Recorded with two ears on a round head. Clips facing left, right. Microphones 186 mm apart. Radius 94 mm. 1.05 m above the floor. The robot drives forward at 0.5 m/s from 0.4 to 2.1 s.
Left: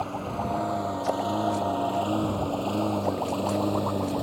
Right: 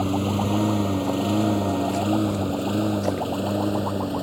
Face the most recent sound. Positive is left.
turn(degrees=-5)  # may be behind; listen again after turning